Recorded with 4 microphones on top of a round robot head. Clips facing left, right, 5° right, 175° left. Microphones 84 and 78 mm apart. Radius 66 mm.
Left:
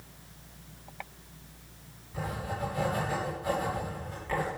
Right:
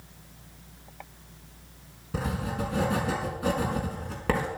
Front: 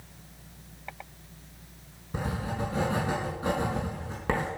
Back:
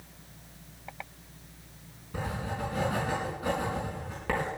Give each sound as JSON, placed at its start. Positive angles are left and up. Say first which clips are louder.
{"t": 2.1, "sound": "writing", "louder": "right 4 dB, front 2 dB", "azimuth_deg": -75, "distance_m": 5.5}